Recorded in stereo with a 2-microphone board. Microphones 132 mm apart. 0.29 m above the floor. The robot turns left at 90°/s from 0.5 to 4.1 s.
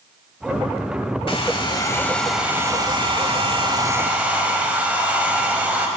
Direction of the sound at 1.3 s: 90° left.